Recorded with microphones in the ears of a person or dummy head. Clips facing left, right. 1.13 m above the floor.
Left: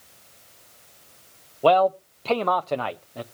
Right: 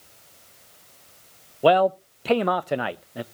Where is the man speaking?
5° right (ahead or behind), 0.5 m.